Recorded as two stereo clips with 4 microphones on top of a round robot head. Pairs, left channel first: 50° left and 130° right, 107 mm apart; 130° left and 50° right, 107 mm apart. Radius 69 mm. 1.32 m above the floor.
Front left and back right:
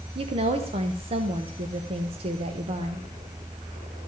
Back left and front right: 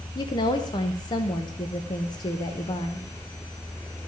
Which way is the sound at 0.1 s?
175° right.